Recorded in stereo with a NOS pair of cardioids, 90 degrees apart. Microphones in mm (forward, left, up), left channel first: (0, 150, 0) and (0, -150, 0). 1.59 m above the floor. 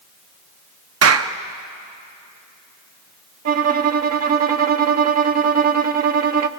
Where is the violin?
60° right, 1.0 m.